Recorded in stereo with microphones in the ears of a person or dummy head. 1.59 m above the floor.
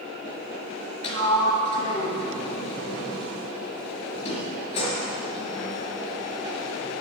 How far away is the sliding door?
About 4 m.